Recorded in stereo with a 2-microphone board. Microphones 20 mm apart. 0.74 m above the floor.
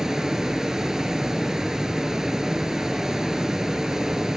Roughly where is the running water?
Right.